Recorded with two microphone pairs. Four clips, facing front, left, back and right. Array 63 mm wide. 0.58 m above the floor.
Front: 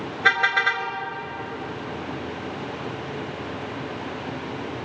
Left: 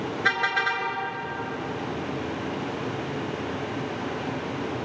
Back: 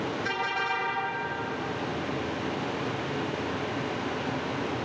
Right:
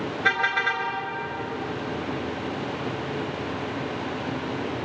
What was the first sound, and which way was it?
A car horn, 15° left.